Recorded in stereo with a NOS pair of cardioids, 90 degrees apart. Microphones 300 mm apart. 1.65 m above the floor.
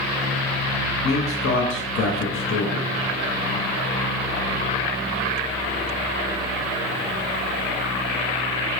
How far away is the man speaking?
About 0.6 m.